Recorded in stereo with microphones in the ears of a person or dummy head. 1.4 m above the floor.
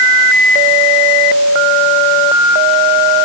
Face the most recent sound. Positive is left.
No sound to turn to.